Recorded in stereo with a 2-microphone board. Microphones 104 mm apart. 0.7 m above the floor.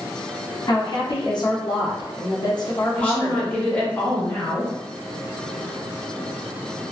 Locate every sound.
0.7 s a woman speaking: 45° left (ahead or behind), 0.7 m
2.9 s a woman speaking: 15° left (ahead or behind), 0.8 m